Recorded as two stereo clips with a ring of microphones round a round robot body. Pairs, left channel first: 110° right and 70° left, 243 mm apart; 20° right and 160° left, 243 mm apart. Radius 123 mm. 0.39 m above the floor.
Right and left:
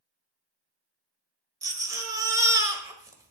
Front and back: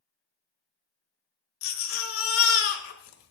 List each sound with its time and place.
1.6 s a baby crying: 10° right, 1.4 m